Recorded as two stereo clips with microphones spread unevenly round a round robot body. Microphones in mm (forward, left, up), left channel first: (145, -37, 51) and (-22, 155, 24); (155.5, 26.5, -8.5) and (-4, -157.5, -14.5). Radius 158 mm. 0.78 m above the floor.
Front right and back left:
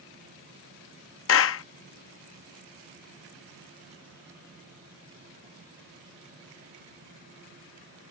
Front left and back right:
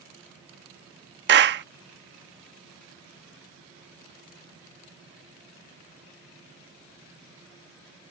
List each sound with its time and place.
1.3 s a clap: 90° right